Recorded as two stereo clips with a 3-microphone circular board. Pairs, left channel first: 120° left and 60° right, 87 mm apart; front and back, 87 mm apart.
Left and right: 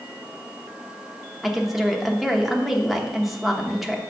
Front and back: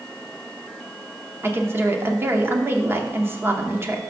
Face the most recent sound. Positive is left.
turn(degrees=-150)